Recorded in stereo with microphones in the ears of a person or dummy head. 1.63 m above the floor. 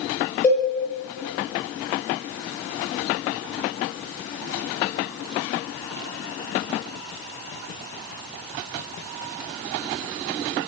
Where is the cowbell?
5° left (ahead or behind), 2.0 m.